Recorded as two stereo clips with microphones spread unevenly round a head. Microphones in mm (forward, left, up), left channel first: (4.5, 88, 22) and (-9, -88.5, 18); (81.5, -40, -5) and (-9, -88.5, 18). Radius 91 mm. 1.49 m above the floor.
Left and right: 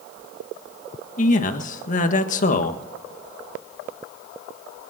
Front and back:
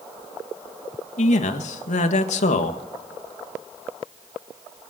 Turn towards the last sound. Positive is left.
turn(degrees=35)